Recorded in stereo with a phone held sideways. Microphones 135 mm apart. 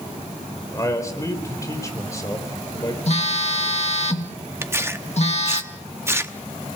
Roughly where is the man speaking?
Left.